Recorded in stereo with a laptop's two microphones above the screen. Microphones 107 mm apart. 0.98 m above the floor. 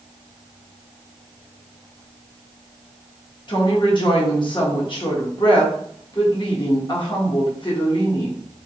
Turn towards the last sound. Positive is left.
turn(degrees=45)  # may be behind; listen again after turning